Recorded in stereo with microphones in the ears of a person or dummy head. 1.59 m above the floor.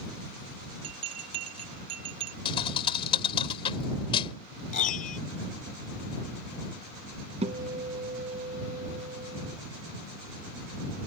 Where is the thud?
35° left (ahead or behind).